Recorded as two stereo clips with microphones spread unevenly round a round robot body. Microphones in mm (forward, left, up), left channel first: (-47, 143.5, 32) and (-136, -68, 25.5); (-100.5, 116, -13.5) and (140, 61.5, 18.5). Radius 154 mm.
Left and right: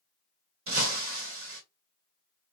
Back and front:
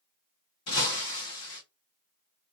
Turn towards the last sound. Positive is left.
turn(degrees=-145)